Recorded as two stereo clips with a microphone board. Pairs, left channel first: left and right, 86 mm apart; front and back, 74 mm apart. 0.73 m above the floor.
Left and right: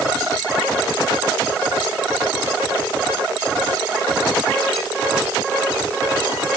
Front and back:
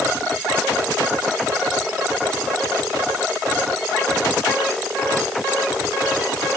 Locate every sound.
Only background noise.